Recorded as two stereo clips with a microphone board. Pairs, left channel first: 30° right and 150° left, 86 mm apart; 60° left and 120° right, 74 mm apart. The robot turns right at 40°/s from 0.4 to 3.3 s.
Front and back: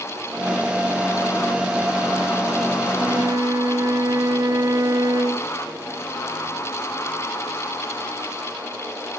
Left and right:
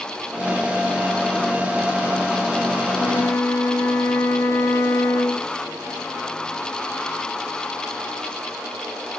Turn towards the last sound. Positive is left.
turn(degrees=110)